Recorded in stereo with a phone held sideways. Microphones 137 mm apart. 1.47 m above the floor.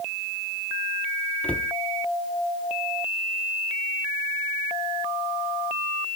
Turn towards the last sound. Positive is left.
turn(degrees=10)  # may be behind; listen again after turning